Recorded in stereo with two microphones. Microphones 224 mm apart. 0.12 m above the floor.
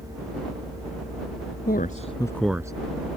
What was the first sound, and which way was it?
A man speaking, 45° left (ahead or behind).